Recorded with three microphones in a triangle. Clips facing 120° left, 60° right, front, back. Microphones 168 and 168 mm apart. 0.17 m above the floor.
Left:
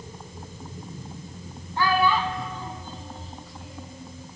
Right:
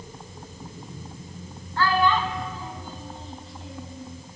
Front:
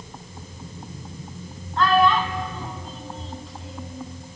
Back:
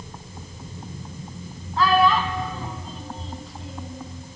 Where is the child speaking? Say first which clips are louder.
Even, even; 95° left, 1.1 m; by 4.0 s 90° right, 1.3 m.